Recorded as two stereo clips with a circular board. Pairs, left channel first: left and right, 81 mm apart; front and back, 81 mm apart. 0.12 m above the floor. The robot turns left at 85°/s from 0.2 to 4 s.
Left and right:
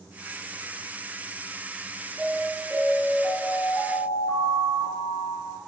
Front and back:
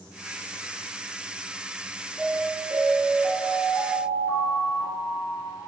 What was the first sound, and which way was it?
An alarm, 95° right.